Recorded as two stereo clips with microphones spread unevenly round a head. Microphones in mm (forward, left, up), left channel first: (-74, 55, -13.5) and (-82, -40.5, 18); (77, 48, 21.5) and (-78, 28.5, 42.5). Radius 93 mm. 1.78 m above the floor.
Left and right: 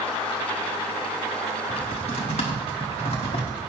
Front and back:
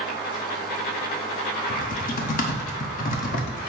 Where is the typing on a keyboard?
40° left, 1.0 m.